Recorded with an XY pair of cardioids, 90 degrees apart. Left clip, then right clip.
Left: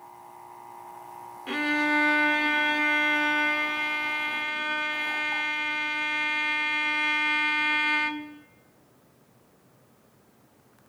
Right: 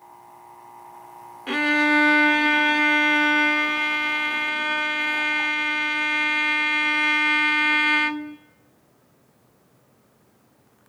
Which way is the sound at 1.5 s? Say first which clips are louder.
Right 6 dB; 40° right.